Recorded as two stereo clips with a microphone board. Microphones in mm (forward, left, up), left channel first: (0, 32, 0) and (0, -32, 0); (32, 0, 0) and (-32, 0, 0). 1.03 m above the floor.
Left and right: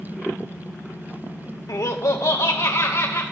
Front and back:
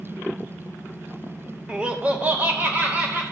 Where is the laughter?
105° left, 0.6 m; by 3.2 s 125° left, 1.4 m.